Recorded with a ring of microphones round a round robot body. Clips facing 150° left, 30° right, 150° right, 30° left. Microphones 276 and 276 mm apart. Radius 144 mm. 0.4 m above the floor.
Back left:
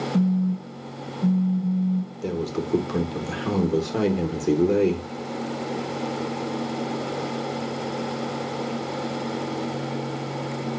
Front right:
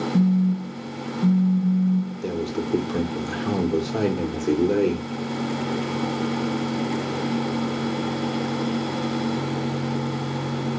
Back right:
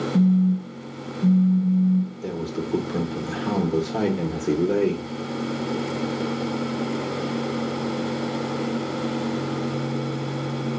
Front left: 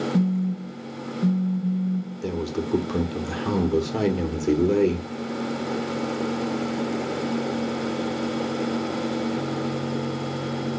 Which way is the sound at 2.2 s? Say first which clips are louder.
Front right 1 dB, front left 1 dB; 75° left.